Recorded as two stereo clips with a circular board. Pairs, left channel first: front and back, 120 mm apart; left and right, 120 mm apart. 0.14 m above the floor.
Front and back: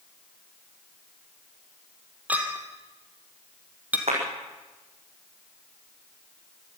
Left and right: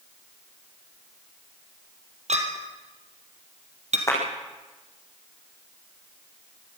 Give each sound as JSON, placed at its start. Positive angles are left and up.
{"t": 2.3, "sound": "a clink", "azimuth_deg": -105, "distance_m": 2.5}
{"t": 4.1, "sound": "a clap", "azimuth_deg": 155, "distance_m": 6.5}